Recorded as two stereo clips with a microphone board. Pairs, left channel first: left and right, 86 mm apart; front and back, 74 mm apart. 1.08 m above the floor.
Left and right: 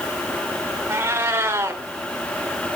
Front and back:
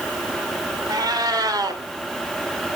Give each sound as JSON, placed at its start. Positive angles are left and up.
{"t": 0.9, "sound": "a cat meowing", "azimuth_deg": -150, "distance_m": 1.6}